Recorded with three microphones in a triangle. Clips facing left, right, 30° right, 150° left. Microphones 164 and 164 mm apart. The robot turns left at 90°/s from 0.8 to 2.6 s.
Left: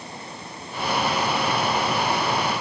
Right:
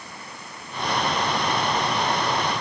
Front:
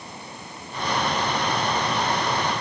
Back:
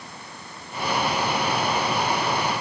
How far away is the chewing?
I don't hear chewing.